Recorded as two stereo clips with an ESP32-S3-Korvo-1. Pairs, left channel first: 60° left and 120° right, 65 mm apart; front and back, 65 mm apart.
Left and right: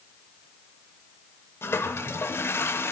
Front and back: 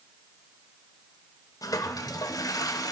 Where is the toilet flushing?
10° left, 0.9 m.